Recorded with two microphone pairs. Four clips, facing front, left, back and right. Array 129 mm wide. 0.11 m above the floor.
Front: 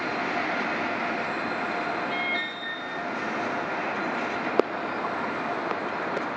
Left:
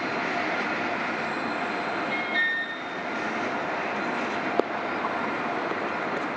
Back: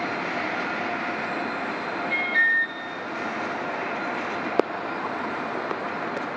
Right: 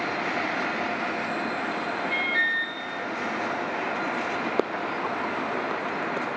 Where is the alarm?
175° left, 3.5 m.